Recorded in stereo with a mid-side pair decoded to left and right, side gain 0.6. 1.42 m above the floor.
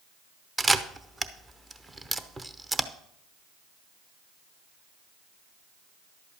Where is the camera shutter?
20° right, 0.9 m.